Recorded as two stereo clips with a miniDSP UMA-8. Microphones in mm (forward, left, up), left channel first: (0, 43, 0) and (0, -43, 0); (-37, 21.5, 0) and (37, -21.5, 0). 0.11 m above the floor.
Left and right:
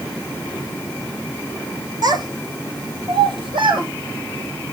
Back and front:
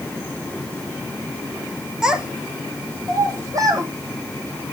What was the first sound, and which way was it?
A child speaking, 110° right.